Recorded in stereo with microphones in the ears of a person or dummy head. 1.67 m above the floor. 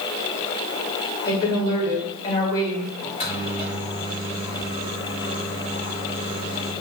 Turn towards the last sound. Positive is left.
turn(degrees=30)  # may be behind; listen again after turning